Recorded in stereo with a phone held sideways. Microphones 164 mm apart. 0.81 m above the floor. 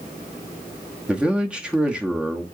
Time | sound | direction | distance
1.1 | a man speaking | 5° right (ahead or behind) | 1.0 m